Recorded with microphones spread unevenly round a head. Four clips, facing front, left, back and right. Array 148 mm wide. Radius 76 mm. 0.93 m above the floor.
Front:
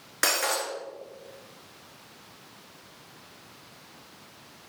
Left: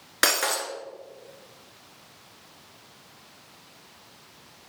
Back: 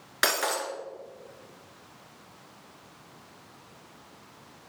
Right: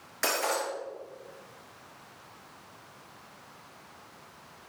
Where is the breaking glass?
90° left, 3 m.